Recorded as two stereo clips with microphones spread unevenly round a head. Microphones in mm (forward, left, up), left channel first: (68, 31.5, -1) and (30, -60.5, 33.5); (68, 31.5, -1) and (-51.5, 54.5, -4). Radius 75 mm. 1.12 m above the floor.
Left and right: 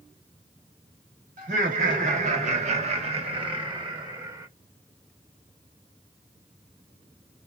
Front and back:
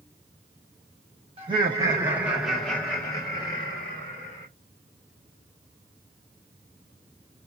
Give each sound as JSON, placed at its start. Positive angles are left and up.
{"t": 1.4, "sound": "laughter", "azimuth_deg": -135, "distance_m": 1.2}